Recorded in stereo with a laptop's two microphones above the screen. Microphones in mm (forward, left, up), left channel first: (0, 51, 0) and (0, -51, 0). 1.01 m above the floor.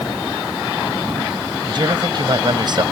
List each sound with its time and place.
1.7 s a man speaking: 45° right (ahead or behind)